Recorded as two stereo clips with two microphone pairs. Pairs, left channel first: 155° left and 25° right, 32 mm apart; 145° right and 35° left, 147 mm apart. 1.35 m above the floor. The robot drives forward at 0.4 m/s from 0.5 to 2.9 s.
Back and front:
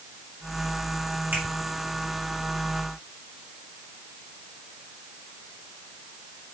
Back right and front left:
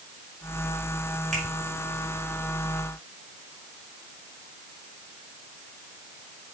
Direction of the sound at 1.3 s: 5° left.